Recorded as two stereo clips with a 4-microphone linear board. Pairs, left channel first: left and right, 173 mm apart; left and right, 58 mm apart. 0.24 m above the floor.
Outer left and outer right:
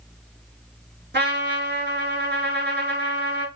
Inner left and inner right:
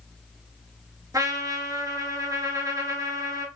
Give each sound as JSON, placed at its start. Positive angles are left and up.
{"t": 1.1, "sound": "a trumpet", "side_deg": -80, "distance_m": 0.7}